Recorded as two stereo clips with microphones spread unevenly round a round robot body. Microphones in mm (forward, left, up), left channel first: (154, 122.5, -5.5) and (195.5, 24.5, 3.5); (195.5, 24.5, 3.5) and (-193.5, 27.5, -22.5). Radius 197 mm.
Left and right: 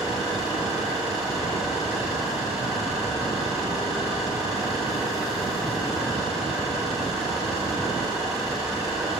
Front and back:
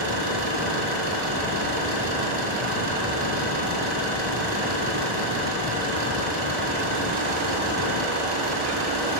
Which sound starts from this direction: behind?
An engine running, at 0.0 s.